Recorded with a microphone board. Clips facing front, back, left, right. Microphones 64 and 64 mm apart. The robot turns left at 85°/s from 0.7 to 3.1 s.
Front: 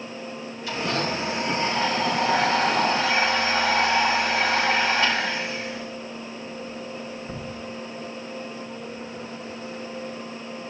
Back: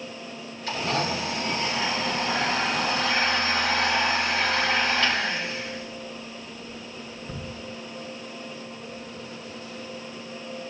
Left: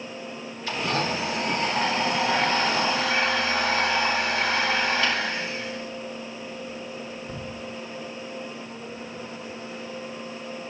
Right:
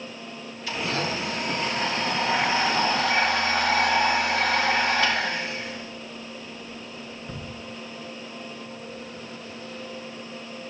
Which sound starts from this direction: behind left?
A blender, at 0.7 s.